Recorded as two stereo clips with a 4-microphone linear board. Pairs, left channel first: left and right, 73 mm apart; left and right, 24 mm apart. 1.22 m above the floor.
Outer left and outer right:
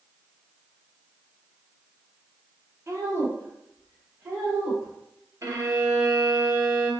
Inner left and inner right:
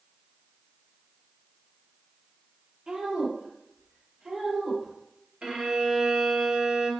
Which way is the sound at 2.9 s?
40° right (ahead or behind).